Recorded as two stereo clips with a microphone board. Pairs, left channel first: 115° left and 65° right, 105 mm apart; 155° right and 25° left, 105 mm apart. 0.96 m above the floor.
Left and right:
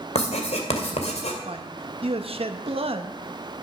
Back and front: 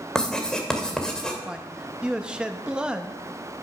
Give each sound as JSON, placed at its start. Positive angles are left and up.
{"t": 0.1, "sound": "writing", "azimuth_deg": 120, "distance_m": 2.0}
{"t": 1.4, "sound": "a man speaking", "azimuth_deg": -60, "distance_m": 1.2}